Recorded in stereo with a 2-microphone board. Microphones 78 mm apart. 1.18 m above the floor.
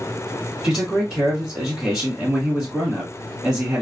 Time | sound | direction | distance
0.6 | a man speaking | 10° right (ahead or behind) | 2 m